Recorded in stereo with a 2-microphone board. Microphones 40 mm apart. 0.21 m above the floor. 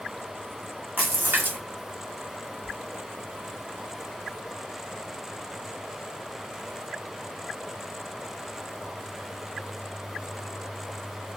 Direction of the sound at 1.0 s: 55° right (ahead or behind).